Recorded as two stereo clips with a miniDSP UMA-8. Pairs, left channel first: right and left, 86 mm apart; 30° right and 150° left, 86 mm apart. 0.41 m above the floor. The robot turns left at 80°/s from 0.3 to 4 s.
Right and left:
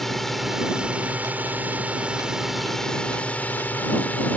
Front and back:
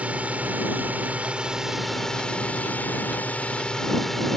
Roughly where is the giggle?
I don't hear a giggle.